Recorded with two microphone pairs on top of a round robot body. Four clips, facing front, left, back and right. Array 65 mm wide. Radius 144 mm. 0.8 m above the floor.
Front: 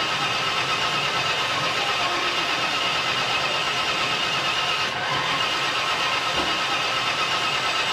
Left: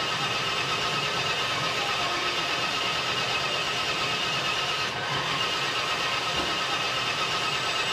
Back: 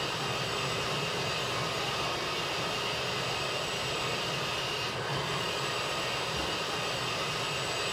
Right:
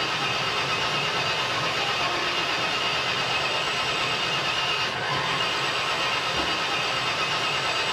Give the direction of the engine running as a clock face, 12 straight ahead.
1 o'clock.